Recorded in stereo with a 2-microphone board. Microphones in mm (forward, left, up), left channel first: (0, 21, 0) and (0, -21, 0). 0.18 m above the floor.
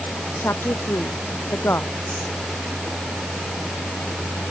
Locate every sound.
0.4 s a woman speaking: 75° left (ahead or behind)